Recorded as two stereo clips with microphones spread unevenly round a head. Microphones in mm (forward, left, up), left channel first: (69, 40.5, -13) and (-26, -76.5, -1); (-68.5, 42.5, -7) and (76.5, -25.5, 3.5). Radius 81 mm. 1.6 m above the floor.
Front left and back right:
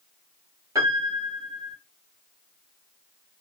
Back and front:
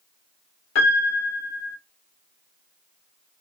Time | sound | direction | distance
0.8 | a piano | 160° left | 1.0 m